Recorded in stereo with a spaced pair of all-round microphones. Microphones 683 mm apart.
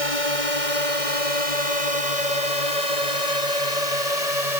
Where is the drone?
50° left (ahead or behind); by 4.6 s 60° left (ahead or behind).